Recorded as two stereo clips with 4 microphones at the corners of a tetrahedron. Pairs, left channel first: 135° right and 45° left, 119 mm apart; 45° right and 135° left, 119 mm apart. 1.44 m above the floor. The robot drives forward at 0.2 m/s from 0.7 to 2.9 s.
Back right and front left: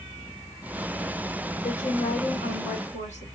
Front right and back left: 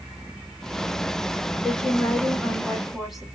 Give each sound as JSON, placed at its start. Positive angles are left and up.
{"t": 1.6, "sound": "a woman speaking", "azimuth_deg": -130, "distance_m": 1.2}